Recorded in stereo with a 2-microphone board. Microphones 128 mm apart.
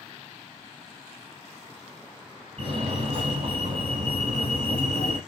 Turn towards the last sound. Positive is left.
turn(degrees=-50)  # may be behind; listen again after turning